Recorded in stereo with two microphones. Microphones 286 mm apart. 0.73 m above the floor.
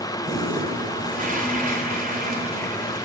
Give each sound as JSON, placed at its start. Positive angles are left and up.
{"t": 0.2, "sound": "a toilet flushing", "side_deg": -30, "distance_m": 3.0}